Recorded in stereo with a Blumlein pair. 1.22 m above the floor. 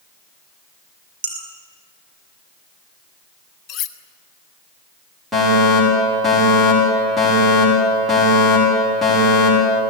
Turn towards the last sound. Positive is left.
turn(degrees=-5)